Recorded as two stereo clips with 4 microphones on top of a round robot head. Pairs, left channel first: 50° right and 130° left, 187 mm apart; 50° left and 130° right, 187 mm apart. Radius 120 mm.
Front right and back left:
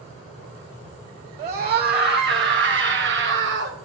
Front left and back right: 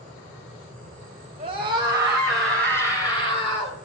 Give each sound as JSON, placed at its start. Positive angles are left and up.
{"t": 1.4, "sound": "a scream", "azimuth_deg": 170, "distance_m": 2.5}